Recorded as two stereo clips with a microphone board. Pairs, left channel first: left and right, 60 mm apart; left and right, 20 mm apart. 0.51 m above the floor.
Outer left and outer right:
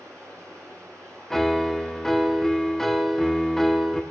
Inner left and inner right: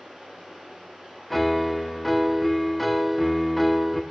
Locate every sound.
0.0 s running water: 70° right (ahead or behind), 6.5 m
1.3 s a piano: 10° left (ahead or behind), 0.7 m